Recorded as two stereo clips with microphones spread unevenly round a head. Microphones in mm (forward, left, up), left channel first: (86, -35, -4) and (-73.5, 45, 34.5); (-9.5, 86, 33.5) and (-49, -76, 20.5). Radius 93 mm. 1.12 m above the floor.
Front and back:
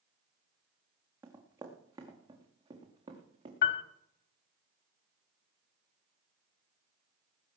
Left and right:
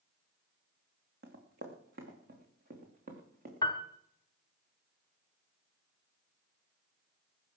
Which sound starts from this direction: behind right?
Running footsteps, at 1.2 s.